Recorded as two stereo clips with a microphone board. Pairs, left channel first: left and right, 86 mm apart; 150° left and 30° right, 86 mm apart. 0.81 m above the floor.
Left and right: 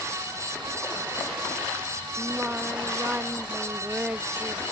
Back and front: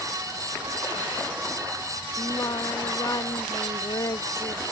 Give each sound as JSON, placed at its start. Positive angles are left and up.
{"t": 2.2, "sound": "singing", "azimuth_deg": -165}